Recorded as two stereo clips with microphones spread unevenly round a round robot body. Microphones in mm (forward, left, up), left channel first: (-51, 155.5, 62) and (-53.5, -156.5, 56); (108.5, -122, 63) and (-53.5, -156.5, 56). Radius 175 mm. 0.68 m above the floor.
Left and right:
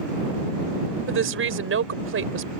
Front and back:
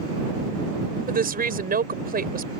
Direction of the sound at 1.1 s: 140° right.